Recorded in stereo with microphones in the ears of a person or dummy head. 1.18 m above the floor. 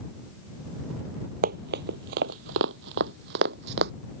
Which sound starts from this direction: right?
Running footsteps, at 1.4 s.